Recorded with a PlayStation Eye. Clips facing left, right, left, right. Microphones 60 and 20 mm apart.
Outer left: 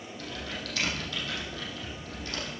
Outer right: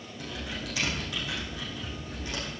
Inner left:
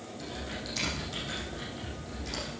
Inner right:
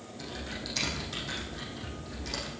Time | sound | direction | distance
0.2 | typing on a keyboard | 15° right (ahead or behind) | 5 m